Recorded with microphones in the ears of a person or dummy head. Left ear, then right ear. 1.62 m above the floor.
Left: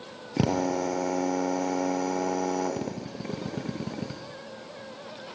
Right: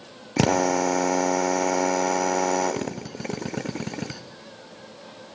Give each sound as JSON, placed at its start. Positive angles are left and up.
{"t": 0.4, "sound": "a drill", "side_deg": -30, "distance_m": 0.7}